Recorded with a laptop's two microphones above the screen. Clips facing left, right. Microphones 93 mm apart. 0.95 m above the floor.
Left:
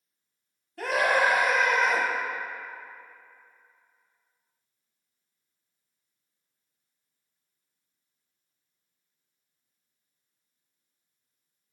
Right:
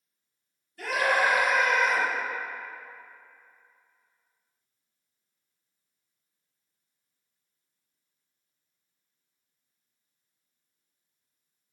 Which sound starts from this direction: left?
A scream, at 0.8 s.